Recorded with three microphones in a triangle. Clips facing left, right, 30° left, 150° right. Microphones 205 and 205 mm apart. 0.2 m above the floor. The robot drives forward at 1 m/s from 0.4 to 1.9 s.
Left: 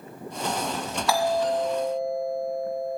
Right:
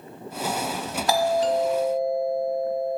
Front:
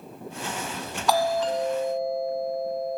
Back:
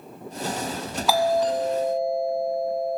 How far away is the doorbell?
About 1.6 m.